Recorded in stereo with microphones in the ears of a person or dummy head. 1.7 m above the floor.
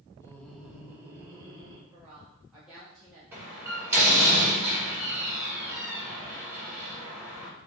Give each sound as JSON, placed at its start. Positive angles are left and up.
{"t": 0.2, "sound": "laughter", "side_deg": 20, "distance_m": 0.7}
{"t": 1.9, "sound": "a woman speaking", "side_deg": -5, "distance_m": 1.0}
{"t": 3.3, "sound": "a door slam", "side_deg": -10, "distance_m": 1.7}